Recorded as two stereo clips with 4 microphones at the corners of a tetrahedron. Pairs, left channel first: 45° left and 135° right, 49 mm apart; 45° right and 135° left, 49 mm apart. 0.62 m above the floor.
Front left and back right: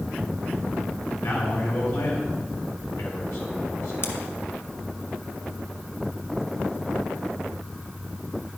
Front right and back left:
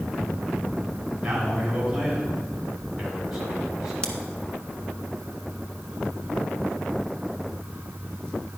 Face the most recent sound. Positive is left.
turn(degrees=20)